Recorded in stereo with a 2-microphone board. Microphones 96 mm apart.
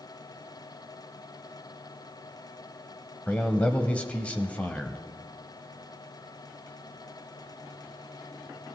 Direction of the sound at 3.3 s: 15° left (ahead or behind).